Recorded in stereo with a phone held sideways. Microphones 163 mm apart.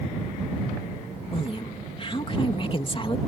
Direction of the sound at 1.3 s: 35° left (ahead or behind).